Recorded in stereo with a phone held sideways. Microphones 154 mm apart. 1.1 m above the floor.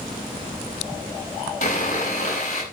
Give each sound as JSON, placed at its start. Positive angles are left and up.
{"t": 1.6, "sound": "sawing", "side_deg": 50, "distance_m": 7.5}